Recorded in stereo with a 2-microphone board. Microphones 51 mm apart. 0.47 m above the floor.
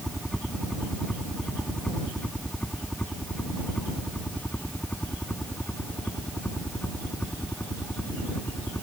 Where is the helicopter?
Centre (ahead or behind); by 8.8 s 40° left (ahead or behind).